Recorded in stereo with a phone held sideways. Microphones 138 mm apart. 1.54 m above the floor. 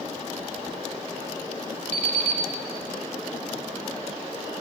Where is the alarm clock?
60° right (ahead or behind), 3 m.